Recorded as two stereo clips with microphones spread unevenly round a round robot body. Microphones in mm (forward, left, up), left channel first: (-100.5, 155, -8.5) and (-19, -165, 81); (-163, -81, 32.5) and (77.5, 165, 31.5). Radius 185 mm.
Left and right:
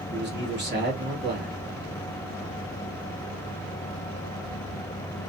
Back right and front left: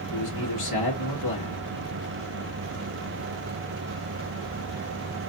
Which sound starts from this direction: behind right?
A man speaking, at 0.1 s.